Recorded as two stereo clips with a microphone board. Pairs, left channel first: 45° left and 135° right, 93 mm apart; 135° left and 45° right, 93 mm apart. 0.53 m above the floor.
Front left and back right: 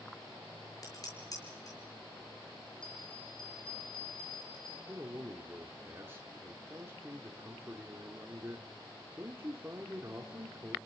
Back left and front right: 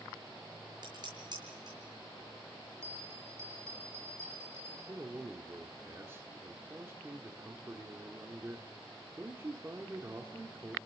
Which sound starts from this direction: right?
A man speaking, at 4.9 s.